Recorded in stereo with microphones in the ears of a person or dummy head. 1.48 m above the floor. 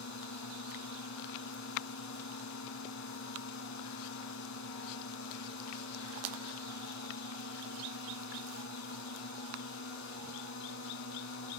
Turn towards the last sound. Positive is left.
turn(degrees=65)  # may be behind; listen again after turning